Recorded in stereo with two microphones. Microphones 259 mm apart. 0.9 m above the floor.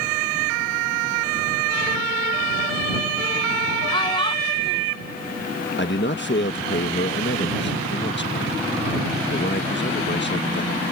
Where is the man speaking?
45° left (ahead or behind).